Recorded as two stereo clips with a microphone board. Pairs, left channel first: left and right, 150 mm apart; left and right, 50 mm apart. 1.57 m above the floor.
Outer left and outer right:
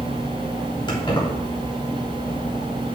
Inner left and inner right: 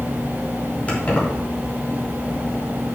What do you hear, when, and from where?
0.9 s keys jangling: 30° left (ahead or behind), 3 m